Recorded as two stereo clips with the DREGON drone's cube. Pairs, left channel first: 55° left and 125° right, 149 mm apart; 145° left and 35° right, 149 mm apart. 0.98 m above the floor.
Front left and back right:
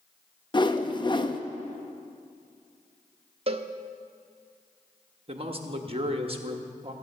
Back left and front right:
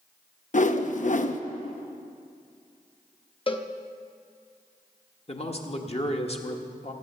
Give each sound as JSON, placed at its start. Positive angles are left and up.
{"t": 0.5, "sound": "a whoosh", "azimuth_deg": 115, "distance_m": 0.6}
{"t": 3.5, "sound": "a cowbell", "azimuth_deg": -165, "distance_m": 0.7}
{"t": 5.3, "sound": "a man speaking", "azimuth_deg": -170, "distance_m": 1.2}